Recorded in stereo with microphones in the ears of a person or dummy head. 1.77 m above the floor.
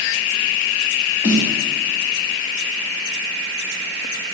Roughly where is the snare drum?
Left.